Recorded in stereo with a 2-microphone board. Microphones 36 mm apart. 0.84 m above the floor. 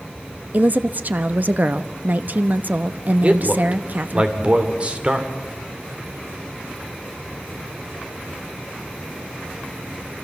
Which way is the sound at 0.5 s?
50° right (ahead or behind).